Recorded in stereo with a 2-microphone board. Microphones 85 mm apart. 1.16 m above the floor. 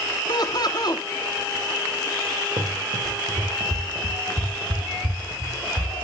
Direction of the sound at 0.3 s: 55° left (ahead or behind).